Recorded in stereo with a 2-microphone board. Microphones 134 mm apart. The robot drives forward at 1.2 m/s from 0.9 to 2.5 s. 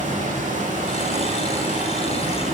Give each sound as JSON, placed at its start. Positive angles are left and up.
{"t": 0.0, "sound": "running water", "side_deg": -75, "distance_m": 4.5}